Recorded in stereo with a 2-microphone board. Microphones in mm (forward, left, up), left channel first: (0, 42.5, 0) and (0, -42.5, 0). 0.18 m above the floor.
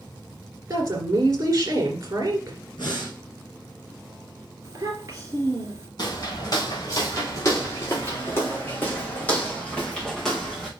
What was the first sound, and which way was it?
A woman speaking, 40° right (ahead or behind).